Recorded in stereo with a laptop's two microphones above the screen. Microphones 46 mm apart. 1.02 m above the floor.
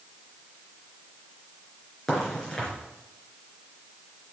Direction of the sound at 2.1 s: 10° left (ahead or behind).